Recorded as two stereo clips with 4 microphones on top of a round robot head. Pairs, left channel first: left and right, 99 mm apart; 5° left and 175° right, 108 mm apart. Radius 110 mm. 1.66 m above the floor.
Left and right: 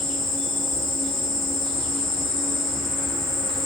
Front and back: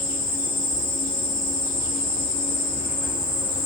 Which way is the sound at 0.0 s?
5° left.